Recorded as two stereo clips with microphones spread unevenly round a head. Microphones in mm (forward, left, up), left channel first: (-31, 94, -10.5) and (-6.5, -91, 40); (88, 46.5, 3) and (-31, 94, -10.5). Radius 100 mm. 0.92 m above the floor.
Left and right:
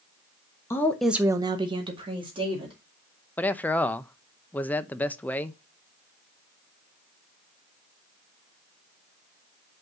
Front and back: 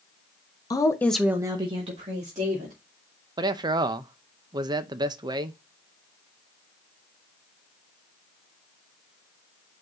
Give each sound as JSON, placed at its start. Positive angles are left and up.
{"t": 0.7, "sound": "a woman speaking", "azimuth_deg": 40, "distance_m": 0.9}
{"t": 3.4, "sound": "a man speaking", "azimuth_deg": 150, "distance_m": 0.5}